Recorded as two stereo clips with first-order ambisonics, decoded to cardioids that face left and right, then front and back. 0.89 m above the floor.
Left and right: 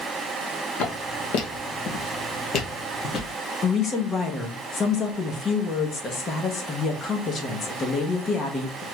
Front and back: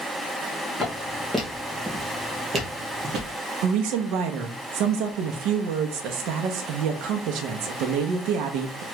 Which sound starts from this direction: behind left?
A woman speaking, at 3.6 s.